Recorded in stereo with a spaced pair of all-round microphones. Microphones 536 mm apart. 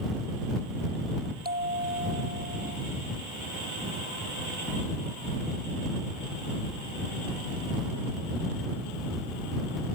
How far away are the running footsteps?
I don't hear running footsteps.